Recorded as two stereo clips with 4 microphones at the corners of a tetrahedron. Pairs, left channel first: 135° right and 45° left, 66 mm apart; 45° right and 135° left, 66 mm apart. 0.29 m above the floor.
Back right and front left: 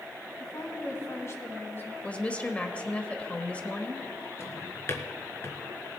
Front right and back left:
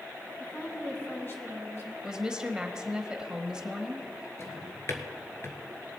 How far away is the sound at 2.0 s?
About 1.1 m.